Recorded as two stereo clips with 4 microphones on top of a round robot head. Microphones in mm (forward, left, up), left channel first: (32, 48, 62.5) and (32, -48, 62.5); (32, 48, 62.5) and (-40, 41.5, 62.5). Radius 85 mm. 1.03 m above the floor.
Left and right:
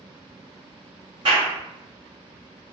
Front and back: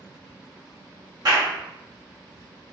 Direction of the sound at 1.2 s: 135° right.